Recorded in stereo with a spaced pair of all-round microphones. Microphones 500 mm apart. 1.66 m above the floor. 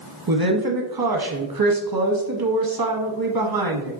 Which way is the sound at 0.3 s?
45° right (ahead or behind).